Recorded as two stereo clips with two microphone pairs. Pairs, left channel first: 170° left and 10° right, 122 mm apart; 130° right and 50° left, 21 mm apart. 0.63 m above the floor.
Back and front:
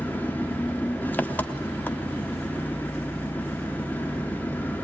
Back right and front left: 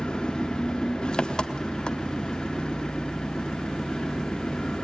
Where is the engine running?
120° right, 0.9 m.